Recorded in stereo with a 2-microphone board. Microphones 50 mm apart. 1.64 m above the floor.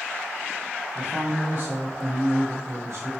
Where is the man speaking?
20° right (ahead or behind), 1.7 m; by 3.1 s 70° right (ahead or behind), 2.0 m.